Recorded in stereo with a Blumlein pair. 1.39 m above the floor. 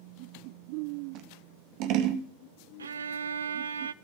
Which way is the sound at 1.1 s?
40° right.